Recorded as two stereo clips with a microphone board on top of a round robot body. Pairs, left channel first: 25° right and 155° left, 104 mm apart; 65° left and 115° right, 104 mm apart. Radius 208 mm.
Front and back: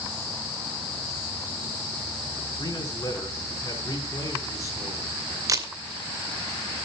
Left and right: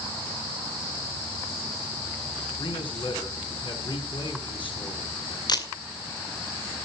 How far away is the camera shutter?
About 2.5 m.